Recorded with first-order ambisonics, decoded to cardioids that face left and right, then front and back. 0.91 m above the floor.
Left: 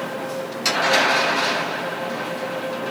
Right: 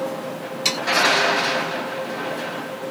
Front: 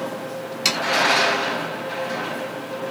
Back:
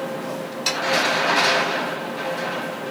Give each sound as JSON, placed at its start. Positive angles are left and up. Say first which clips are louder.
{"t": 0.7, "sound": "sawing", "louder": "left 1 dB, front 3 dB", "azimuth_deg": -5, "distance_m": 1.9}